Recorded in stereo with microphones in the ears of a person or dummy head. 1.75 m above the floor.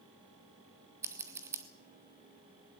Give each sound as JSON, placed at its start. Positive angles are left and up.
{"t": 1.0, "sound": "scissors", "side_deg": -15, "distance_m": 0.9}